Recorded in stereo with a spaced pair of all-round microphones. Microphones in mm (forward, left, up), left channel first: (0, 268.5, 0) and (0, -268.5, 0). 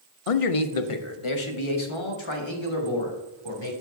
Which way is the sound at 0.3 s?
80° left.